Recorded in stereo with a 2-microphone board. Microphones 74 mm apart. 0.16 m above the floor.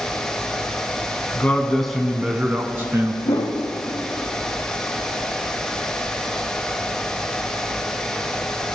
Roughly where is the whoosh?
Left.